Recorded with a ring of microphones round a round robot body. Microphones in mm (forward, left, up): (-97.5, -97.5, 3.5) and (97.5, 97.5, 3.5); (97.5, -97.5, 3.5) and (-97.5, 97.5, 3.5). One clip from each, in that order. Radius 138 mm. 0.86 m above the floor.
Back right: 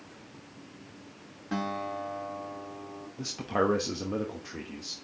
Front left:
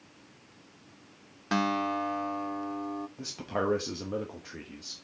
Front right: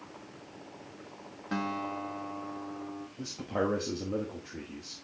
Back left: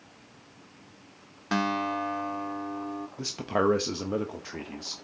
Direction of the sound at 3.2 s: 130° left.